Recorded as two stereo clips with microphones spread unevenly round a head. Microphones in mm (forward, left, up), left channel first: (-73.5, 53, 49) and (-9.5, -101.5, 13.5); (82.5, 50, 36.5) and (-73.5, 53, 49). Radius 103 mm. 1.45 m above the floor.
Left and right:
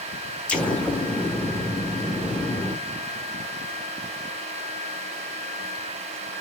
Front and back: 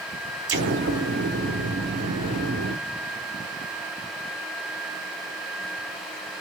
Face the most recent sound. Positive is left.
turn(degrees=-170)